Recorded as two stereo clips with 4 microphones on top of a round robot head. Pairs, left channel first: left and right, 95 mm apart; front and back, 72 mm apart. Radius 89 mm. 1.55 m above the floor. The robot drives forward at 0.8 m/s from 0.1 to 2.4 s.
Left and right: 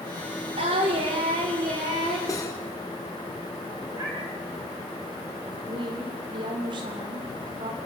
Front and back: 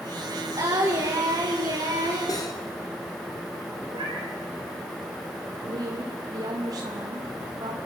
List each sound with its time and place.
0.6 s singing: 120° right, 4.5 m; by 2.2 s 130° right, 5 m
2.3 s cutlery clinking: 35° left, 3.5 m
3.9 s a cat meowing: 150° right, 4.5 m
5.7 s a woman speaking: 135° right, 2.5 m